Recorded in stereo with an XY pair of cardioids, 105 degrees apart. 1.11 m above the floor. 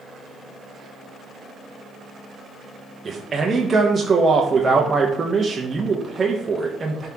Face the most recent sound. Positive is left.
turn(degrees=-30)